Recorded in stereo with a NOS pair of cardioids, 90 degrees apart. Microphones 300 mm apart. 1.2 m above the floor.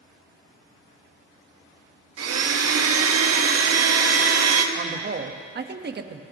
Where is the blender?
55° right, 1.6 m.